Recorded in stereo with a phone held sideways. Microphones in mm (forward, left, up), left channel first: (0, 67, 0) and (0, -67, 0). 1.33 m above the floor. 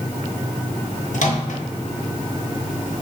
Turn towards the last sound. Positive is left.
turn(degrees=70)  # may be behind; listen again after turning